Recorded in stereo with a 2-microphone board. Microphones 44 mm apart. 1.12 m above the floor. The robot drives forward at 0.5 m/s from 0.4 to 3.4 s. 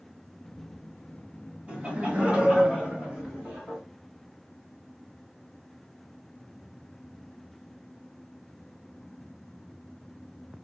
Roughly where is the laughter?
Right.